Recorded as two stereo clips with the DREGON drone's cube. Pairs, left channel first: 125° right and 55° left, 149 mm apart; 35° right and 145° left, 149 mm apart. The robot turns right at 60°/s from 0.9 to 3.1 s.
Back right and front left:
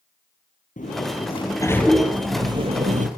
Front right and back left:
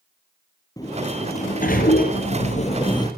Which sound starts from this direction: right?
A sliding door, at 0.8 s.